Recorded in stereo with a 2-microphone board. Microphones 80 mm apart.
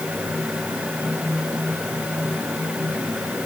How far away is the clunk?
I don't hear a clunk.